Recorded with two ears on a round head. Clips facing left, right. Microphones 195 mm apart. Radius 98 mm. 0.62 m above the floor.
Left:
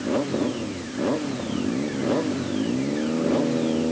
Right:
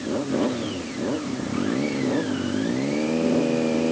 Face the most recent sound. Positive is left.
No sound to turn to.